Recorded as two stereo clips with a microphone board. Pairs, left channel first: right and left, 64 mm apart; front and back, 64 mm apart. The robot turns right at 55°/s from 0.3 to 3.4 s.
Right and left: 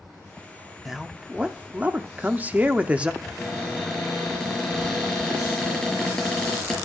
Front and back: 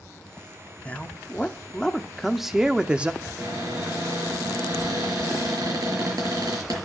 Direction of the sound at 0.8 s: 10° left.